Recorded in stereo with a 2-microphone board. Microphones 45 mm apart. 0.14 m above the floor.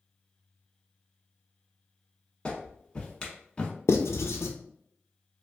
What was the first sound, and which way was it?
A clap, 20° left (ahead or behind).